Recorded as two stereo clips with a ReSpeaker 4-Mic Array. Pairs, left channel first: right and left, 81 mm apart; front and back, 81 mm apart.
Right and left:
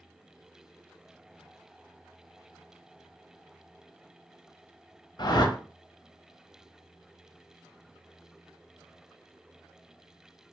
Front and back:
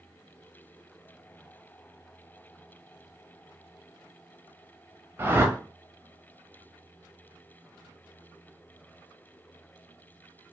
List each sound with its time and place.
5.2 s a whoosh: 120° right, 0.5 m